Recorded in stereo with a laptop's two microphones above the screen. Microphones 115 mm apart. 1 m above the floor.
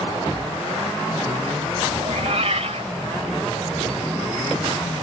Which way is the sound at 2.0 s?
65° right (ahead or behind).